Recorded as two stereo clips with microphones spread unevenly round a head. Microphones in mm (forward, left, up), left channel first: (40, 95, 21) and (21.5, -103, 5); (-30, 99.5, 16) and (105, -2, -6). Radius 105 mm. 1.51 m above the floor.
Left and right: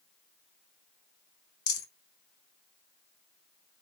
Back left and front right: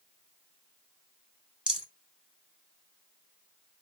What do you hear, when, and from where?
1.7 s a rattle: 50° left, 2.5 m